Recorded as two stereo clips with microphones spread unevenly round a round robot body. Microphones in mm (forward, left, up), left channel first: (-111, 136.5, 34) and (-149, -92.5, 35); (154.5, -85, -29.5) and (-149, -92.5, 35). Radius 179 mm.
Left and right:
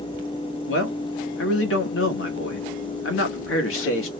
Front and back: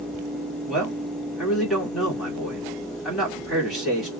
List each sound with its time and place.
0.7 s a man speaking: 85° left, 1.4 m